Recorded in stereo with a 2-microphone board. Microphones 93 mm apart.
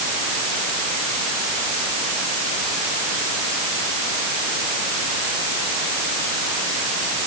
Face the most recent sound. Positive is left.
No sound to turn to.